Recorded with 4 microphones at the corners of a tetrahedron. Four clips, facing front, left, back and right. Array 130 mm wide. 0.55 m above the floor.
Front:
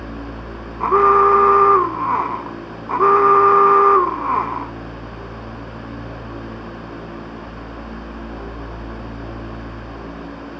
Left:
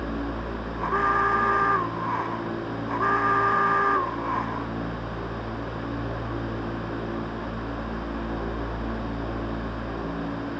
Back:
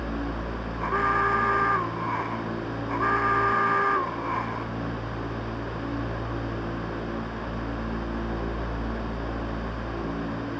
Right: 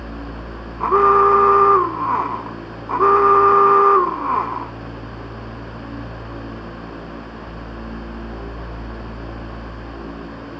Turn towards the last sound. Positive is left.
turn(degrees=-40)